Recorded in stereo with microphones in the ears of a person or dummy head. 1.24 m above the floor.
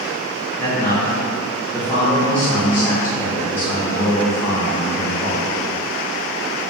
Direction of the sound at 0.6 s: 10° left (ahead or behind).